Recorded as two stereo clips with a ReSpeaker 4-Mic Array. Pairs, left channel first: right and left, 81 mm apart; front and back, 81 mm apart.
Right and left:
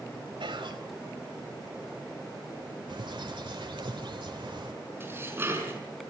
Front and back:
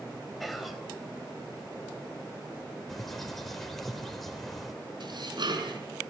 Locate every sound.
0.4 s whispering: 90° left, 3.5 m
2.9 s a bird: 90° left, 3.5 m
5.0 s dishes clattering: 155° left, 5 m